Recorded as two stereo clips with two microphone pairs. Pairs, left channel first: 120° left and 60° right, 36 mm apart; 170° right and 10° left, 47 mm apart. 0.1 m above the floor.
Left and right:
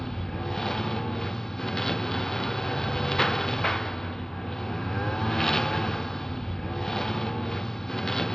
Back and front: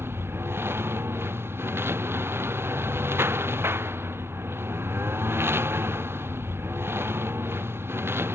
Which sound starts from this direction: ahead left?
A lawn mower, at 0.0 s.